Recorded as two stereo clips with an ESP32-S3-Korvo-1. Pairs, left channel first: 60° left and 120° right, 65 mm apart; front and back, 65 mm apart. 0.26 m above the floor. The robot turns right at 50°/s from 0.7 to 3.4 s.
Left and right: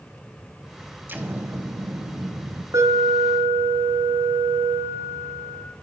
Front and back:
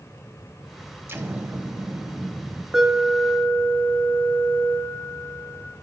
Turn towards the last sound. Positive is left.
turn(degrees=-65)